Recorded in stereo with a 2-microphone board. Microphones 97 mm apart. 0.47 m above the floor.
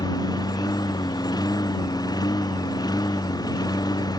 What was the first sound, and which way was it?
A lawn mower, 45° left (ahead or behind).